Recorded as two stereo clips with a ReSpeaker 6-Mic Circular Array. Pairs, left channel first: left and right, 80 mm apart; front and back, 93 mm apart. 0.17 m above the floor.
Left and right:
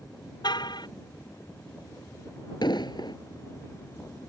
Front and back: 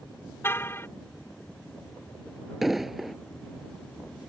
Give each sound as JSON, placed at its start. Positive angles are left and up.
{"t": 0.4, "sound": "a car horn", "azimuth_deg": 65}
{"t": 2.6, "sound": "an explosion", "azimuth_deg": 95}